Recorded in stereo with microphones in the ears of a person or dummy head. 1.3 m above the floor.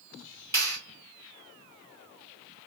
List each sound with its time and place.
0.5 s a clap: 15° left (ahead or behind), 1.7 m